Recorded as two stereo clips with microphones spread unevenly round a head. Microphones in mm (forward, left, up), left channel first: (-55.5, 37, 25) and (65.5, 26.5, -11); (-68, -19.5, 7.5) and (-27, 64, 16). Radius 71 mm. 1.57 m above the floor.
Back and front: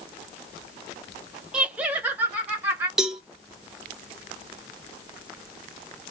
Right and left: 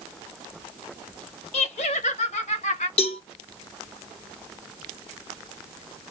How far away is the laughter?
About 0.8 m.